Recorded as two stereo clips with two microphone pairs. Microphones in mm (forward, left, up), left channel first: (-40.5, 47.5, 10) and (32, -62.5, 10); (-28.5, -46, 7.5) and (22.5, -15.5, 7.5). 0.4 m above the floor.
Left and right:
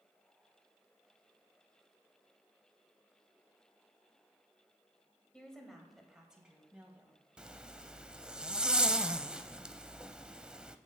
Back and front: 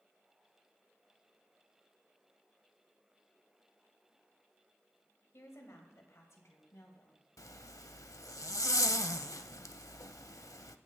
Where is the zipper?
140° right, 0.5 m.